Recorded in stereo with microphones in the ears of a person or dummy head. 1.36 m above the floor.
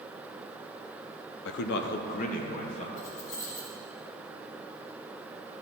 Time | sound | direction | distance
1.4 | a man speaking | 65° left (ahead or behind) | 0.5 m
3.0 | keys jangling | 70° left (ahead or behind) | 2.5 m